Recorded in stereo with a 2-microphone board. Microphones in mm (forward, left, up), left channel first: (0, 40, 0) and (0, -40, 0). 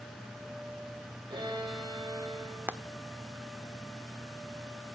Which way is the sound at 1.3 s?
70° right (ahead or behind).